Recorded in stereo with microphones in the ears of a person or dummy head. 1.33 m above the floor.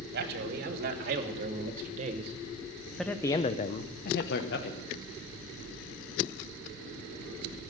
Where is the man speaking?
60° right (ahead or behind), 1.9 m; by 4.9 s 80° left, 1.2 m.